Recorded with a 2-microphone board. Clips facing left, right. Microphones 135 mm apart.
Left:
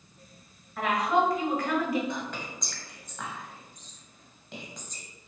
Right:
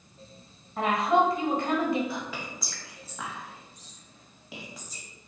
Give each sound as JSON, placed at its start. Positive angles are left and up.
{"t": 0.8, "sound": "a woman speaking", "side_deg": -25, "distance_m": 1.3}
{"t": 2.1, "sound": "whispering", "side_deg": -5, "distance_m": 1.6}